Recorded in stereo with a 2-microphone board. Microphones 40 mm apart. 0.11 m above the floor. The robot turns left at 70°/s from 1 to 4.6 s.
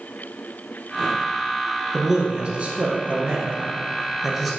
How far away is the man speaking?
About 1.4 m.